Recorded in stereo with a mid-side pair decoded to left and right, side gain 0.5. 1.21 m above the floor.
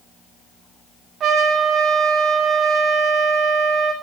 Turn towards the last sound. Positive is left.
turn(degrees=-45)